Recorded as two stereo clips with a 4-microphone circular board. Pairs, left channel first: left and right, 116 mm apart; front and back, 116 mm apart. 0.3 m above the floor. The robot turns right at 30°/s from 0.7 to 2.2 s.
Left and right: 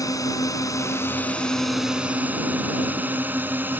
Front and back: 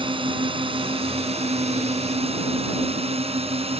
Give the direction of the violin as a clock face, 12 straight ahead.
I don't hear a violin.